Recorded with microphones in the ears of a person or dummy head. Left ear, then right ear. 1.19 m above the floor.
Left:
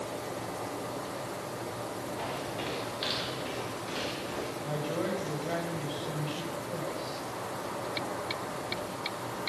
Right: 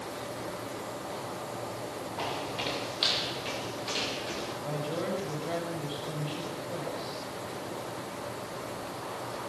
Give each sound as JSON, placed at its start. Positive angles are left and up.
{"t": 2.2, "sound": "footsteps", "side_deg": -20, "distance_m": 7.5}
{"t": 4.6, "sound": "a woman speaking", "side_deg": 5, "distance_m": 6.5}